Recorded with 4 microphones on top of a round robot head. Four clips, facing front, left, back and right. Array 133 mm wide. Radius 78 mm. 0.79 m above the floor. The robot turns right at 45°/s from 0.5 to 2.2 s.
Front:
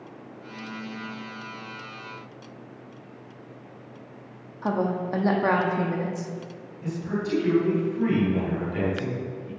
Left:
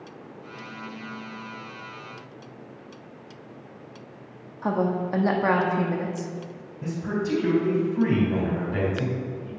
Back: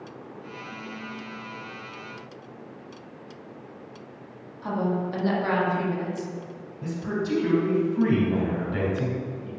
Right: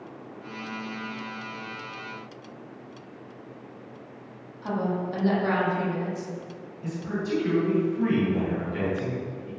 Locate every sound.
4.6 s a woman speaking: 45° left, 1.6 m
6.8 s a man speaking: 125° left, 3.5 m